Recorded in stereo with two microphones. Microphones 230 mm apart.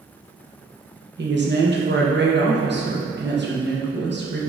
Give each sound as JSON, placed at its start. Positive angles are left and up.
{"t": 1.2, "sound": "a woman speaking", "side_deg": -50, "distance_m": 1.1}